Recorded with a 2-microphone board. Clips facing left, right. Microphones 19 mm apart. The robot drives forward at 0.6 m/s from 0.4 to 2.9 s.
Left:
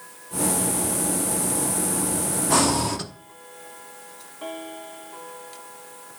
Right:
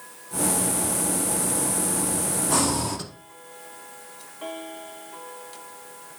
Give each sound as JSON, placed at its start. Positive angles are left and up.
{"t": 2.5, "sound": "breathing", "side_deg": 20, "distance_m": 0.6}